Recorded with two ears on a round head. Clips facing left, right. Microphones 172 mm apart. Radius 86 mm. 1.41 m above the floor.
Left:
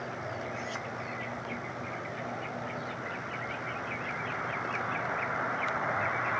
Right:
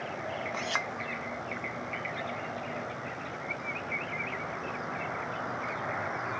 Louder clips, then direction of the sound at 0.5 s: Right 2 dB; 75° right (ahead or behind).